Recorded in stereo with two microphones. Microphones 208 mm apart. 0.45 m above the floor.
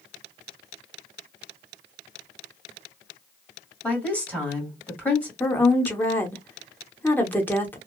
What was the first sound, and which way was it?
A woman speaking, 5° left (ahead or behind).